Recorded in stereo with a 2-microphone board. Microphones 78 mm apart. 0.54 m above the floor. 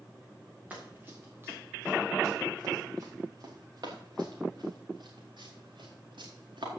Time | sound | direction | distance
0.7 | running footsteps | 20° right (ahead or behind) | 3.5 m